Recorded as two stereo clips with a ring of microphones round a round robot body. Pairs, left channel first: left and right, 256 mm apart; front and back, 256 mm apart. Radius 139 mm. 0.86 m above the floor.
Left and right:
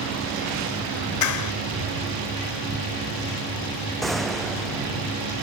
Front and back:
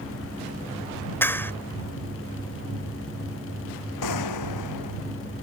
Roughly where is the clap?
Left.